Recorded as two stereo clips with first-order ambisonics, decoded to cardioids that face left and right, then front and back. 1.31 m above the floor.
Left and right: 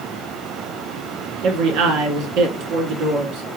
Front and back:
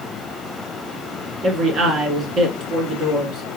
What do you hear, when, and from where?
1.4 s a man speaking: 120° right, 1.8 m